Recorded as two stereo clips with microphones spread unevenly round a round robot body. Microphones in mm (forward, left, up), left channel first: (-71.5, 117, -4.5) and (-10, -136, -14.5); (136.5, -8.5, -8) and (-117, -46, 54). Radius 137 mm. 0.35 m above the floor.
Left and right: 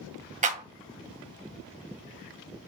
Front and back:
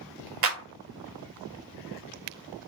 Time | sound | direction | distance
0.4 | a clap | 130° right | 2 m